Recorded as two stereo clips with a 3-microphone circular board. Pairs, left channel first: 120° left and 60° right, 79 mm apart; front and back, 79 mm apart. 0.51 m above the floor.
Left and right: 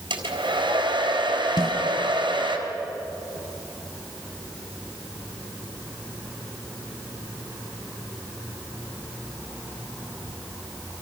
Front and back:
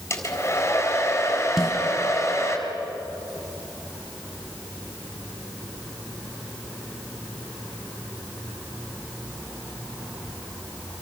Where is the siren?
No siren in this recording.